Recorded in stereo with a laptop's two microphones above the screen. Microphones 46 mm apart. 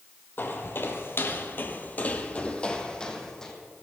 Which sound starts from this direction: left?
Footsteps, at 0.4 s.